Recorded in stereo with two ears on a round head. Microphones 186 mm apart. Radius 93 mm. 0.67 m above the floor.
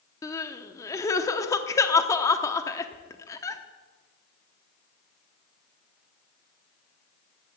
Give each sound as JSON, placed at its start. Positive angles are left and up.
{"t": 0.2, "sound": "crying", "side_deg": 15, "distance_m": 0.8}